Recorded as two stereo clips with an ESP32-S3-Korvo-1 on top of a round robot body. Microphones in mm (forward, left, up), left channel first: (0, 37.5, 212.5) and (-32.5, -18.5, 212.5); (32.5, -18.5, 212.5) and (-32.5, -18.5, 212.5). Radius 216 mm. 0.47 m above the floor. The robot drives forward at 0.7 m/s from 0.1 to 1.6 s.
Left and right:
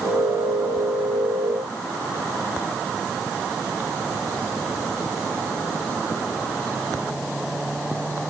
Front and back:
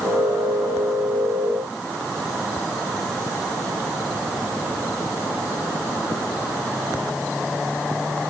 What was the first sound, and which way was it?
Only background noise.